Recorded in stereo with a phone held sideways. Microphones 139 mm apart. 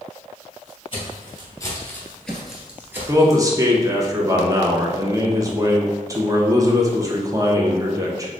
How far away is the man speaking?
About 0.8 m.